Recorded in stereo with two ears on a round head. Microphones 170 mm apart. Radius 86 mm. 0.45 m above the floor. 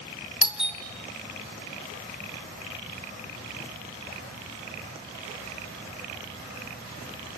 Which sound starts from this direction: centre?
A doorbell, at 0.4 s.